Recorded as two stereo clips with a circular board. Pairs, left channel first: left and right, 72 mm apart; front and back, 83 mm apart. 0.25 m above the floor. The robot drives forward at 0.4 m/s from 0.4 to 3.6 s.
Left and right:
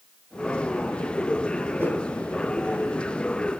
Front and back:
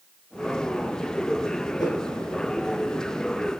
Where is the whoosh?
30° right, 2.5 m.